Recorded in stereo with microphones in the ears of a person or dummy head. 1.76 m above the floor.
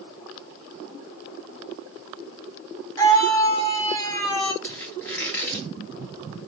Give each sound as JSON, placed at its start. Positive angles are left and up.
{"t": 3.0, "sound": "a scream", "side_deg": 20, "distance_m": 1.6}
{"t": 4.6, "sound": "a squeak", "side_deg": 15, "distance_m": 1.9}